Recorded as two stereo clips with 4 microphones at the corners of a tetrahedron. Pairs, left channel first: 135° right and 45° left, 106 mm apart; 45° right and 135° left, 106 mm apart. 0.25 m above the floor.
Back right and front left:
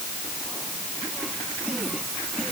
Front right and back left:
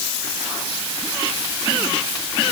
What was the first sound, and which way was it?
Only background noise.